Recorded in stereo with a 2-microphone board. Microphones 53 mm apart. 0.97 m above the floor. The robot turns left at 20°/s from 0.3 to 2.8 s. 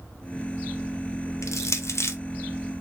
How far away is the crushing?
About 0.5 m.